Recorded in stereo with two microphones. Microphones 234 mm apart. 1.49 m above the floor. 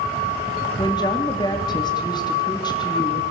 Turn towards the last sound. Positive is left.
turn(degrees=20)  # may be behind; listen again after turning